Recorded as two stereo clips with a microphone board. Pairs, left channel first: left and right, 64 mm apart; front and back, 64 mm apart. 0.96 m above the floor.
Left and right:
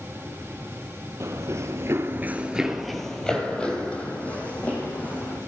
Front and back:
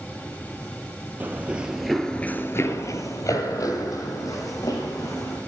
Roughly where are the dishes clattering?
I don't hear dishes clattering.